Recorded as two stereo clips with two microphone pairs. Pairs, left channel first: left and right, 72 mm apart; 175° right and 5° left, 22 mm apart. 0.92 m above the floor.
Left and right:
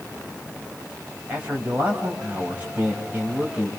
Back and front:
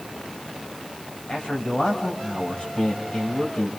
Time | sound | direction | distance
1.3 | a man speaking | 155° right | 7 m